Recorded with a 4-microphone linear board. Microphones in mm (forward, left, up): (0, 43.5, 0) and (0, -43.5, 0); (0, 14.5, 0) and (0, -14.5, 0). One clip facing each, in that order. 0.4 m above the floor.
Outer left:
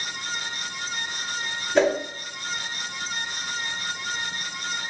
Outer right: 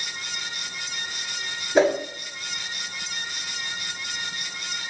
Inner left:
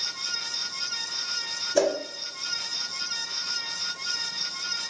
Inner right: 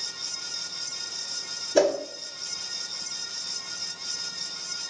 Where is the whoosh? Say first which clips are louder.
Outer right 1 dB, inner right 2 dB; 10° right (ahead or behind), 0.6 m.